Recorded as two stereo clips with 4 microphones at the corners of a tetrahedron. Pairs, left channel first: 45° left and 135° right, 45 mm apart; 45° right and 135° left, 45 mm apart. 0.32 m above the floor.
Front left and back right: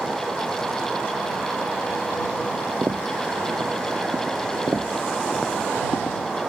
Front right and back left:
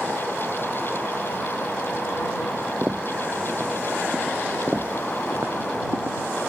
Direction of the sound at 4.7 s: 155° right.